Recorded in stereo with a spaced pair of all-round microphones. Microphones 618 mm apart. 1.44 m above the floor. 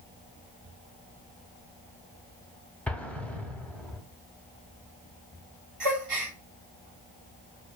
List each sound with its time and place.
2.9 s an explosion: centre (ahead or behind), 0.5 m
5.8 s a gasp: 60° right (ahead or behind), 1.0 m